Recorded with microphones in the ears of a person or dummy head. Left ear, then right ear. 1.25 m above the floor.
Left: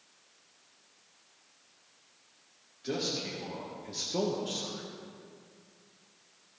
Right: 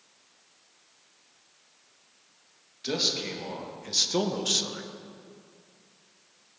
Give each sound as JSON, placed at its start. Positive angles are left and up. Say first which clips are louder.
{"t": 2.8, "sound": "a man speaking", "louder": "right 6 dB", "side_deg": -30, "distance_m": 2.0}